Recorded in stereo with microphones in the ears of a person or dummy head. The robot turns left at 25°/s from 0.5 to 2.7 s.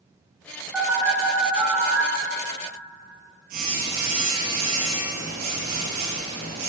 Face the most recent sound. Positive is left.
turn(degrees=-55)